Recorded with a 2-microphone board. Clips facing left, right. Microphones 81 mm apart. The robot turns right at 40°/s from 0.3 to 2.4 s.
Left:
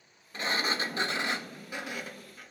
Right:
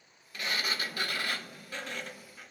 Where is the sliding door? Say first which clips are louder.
Left 4 dB; 95° left, 0.5 m; by 2.5 s straight behind, 0.5 m.